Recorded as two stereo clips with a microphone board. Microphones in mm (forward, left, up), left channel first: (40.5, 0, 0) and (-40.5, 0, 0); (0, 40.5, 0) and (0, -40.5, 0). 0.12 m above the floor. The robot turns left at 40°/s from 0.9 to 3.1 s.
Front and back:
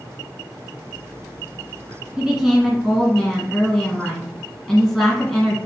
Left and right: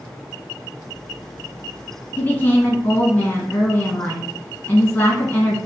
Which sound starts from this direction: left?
A woman speaking, at 2.2 s.